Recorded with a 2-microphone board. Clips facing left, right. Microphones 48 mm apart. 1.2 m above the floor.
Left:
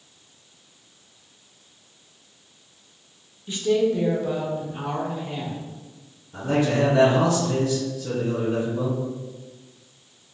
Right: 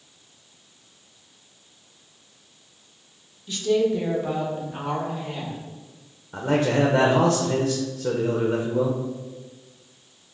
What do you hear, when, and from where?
3.5 s a woman speaking: 20° left (ahead or behind), 0.8 m; by 5.6 s 65° right (ahead or behind), 1.6 m
6.3 s a man speaking: 50° right (ahead or behind), 0.6 m